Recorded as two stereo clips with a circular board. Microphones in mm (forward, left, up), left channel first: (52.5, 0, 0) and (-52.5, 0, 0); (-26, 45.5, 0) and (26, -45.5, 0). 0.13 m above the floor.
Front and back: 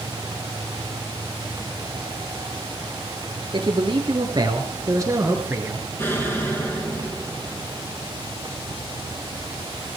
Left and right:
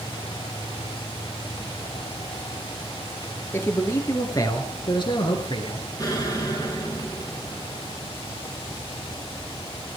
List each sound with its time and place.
3.5 s a man speaking: straight behind, 2.5 m; by 5.8 s 115° left, 2.5 m
6.0 s an explosion: 65° left, 3.5 m